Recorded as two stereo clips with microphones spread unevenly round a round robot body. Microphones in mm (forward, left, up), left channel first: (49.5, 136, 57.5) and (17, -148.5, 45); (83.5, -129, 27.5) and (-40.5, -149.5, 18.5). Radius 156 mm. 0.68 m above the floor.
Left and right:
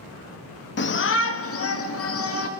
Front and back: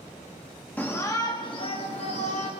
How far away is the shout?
About 1.2 m.